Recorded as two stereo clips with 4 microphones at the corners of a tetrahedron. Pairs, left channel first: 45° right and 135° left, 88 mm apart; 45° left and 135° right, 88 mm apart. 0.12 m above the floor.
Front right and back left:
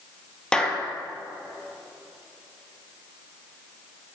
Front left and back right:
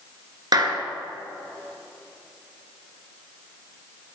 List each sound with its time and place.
0.5 s a clap: 125° right, 1.9 m